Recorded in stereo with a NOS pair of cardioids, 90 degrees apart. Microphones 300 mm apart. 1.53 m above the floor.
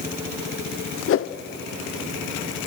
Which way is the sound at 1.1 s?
45° left.